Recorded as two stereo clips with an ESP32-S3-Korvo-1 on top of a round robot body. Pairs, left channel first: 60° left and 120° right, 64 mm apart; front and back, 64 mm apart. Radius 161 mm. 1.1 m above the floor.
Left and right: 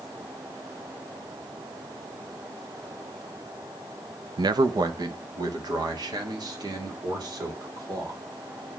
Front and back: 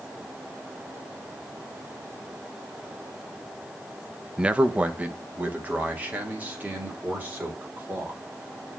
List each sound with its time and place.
4.4 s a man speaking: 105° right, 0.6 m; by 8.2 s 115° right, 4.5 m